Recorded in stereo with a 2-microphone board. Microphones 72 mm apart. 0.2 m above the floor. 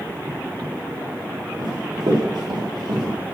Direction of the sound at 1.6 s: 80° right.